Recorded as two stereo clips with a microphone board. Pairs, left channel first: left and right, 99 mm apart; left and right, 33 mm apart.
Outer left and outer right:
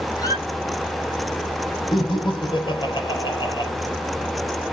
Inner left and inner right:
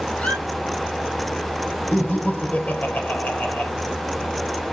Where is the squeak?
40° left (ahead or behind), 1.8 m.